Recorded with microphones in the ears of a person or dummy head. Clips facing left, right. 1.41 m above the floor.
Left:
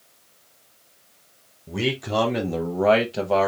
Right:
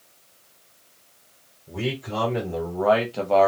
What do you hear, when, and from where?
1.7 s a man speaking: 70° left (ahead or behind), 0.9 m; by 3.5 s centre (ahead or behind), 0.6 m